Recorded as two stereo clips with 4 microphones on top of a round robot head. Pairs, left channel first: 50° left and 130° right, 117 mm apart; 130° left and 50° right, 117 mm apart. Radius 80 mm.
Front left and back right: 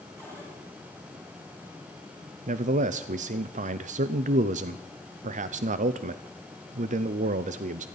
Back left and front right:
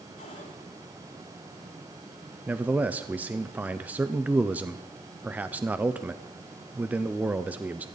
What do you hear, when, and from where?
0.2 s a cupboard door: 165° left, 7 m
2.5 s a man speaking: 130° right, 0.6 m